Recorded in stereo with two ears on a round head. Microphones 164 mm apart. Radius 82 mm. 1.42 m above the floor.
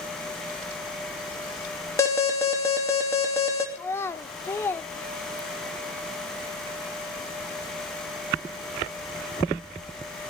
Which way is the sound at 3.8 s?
15° left (ahead or behind).